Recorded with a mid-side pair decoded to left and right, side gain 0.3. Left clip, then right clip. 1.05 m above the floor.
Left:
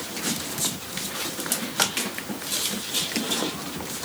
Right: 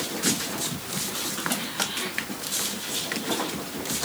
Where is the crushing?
No crushing in this recording.